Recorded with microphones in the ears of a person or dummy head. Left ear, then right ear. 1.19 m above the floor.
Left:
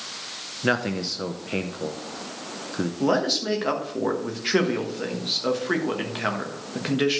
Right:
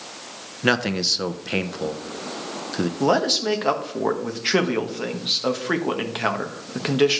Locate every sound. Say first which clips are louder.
0.6 s a man speaking: right 4 dB; 20° right (ahead or behind), 0.7 m
3.0 s a man speaking: right 3 dB; 20° right (ahead or behind), 1.1 m